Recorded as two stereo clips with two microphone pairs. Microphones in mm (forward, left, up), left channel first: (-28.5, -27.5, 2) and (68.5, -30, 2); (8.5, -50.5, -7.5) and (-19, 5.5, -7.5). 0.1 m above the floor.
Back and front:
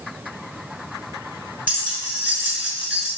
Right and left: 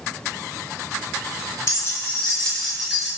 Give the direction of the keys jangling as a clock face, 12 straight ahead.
2 o'clock.